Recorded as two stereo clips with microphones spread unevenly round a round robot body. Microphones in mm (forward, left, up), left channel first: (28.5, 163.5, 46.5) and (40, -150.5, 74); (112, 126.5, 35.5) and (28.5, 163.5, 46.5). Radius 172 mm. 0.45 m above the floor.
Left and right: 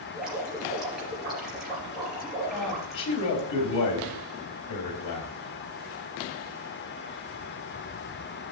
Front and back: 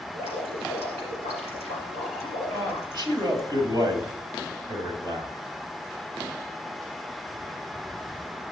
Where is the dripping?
175° right, 3.5 m.